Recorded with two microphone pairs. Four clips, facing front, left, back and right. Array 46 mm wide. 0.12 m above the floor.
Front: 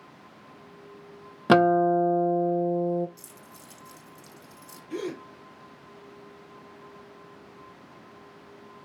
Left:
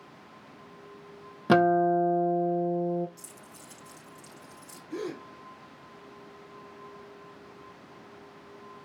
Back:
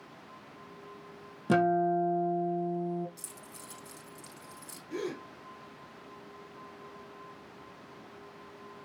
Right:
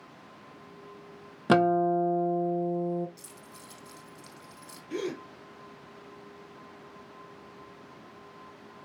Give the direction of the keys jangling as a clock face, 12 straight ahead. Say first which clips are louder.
Even, even; 5 o'clock.